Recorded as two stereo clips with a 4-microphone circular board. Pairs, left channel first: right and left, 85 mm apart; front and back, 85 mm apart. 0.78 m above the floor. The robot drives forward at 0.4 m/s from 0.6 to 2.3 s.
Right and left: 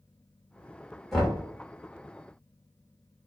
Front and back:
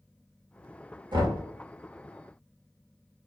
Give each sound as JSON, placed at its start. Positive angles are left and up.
{"t": 1.1, "sound": "knocking", "azimuth_deg": -175, "distance_m": 1.4}